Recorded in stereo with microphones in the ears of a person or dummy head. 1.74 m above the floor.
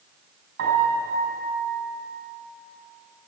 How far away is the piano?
About 6 m.